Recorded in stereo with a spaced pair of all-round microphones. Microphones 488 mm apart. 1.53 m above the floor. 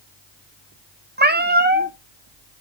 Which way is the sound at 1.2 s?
20° right (ahead or behind).